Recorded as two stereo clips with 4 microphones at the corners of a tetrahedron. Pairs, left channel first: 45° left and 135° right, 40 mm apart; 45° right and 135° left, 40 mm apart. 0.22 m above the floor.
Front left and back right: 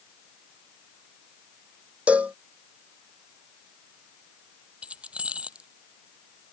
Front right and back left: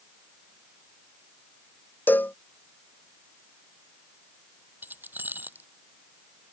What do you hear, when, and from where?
2.1 s a cowbell: 80° right
4.8 s keys jangling: 165° left